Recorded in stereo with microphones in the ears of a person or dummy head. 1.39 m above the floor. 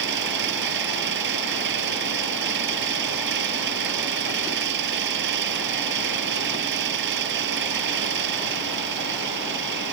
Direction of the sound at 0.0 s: 60° right (ahead or behind).